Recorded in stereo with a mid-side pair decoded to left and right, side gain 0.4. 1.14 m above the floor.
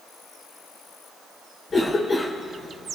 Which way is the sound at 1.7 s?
40° left.